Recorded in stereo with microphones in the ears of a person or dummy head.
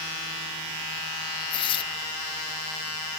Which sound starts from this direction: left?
Tearing paper, at 1.5 s.